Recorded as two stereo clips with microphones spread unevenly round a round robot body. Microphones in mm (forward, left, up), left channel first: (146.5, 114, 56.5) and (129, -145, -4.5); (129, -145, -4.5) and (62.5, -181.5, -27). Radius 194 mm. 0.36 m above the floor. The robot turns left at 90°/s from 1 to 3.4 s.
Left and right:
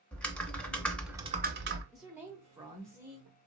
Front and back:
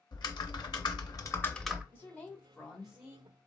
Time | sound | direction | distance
0.1 | typing on a keyboard | 5° right | 0.7 m
1.9 | a woman speaking | 30° right | 0.8 m